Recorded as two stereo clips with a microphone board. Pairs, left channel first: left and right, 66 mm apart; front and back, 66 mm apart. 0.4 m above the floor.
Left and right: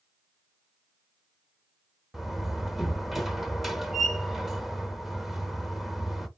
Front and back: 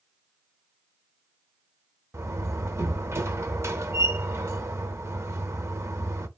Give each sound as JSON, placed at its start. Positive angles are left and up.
{"t": 2.1, "sound": "a door slam", "azimuth_deg": -175, "distance_m": 0.7}